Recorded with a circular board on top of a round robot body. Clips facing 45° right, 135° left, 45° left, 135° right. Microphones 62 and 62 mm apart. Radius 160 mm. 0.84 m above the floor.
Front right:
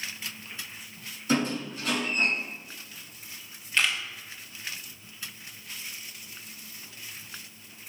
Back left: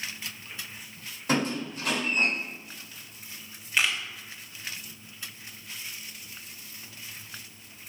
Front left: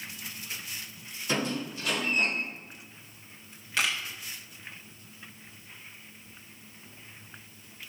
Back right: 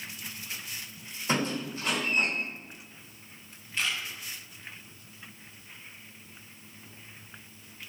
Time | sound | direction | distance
1.3 | a squeak | 170° left | 4 m
3.8 | a camera shutter | 55° left | 1.1 m